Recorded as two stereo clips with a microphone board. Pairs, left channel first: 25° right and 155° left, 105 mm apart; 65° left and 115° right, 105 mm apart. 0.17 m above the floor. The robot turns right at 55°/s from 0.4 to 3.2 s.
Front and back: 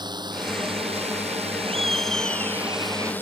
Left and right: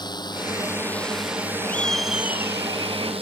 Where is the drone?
110° left; by 3.2 s 95° right.